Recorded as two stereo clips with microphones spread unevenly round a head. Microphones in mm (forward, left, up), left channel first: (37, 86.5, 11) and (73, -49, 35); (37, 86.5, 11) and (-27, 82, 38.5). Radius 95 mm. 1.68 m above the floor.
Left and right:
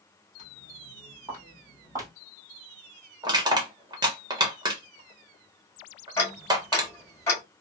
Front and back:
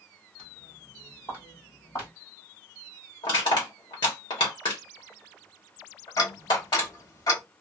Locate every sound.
0.4 s footsteps: 120° right, 1.7 m; by 2.1 s 50° right, 1.9 m
3.2 s crushing: 35° right, 1.0 m
6.2 s ticking: 30° left, 1.3 m